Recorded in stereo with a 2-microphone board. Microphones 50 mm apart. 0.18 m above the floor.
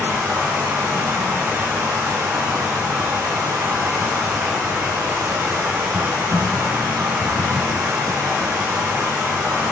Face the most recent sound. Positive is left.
turn(degrees=-55)  # may be behind; listen again after turning